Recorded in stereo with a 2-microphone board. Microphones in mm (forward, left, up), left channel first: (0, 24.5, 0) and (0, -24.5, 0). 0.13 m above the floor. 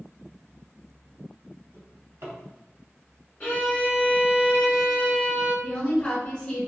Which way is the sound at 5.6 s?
25° left (ahead or behind).